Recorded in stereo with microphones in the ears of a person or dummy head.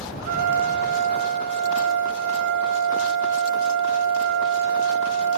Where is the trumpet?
50° right (ahead or behind), 1.2 m.